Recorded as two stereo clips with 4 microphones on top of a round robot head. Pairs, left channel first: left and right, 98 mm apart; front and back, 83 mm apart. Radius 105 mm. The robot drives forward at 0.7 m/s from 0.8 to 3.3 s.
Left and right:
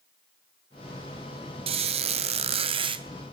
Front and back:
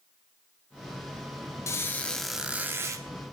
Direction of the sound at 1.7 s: 60° right.